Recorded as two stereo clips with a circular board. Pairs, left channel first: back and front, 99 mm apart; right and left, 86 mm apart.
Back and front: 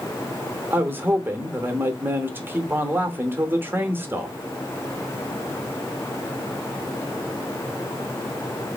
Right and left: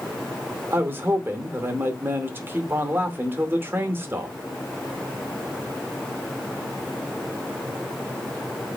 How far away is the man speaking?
About 0.9 m.